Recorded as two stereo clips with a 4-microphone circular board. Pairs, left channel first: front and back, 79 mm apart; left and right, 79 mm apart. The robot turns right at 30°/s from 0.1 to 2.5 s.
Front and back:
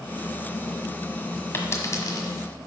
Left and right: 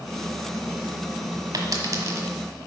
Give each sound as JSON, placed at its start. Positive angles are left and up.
{"t": 1.5, "sound": "a dropped coin", "azimuth_deg": -60, "distance_m": 1.5}